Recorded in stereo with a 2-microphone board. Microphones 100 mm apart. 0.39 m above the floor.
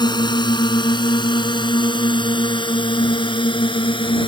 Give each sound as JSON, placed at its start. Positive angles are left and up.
{"t": 0.0, "sound": "a drone", "side_deg": 50}